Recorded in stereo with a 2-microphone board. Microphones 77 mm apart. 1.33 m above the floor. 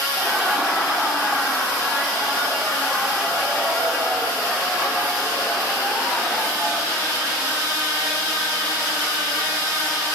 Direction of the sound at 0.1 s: 20° right (ahead or behind).